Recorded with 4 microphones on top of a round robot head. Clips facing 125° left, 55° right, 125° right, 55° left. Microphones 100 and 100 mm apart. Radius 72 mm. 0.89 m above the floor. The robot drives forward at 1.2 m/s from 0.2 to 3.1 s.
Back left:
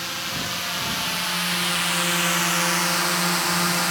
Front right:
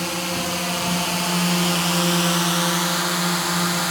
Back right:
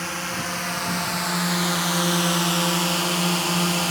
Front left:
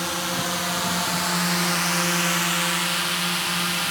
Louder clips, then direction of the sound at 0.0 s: Front right 6 dB, front left 2 dB; 20° right.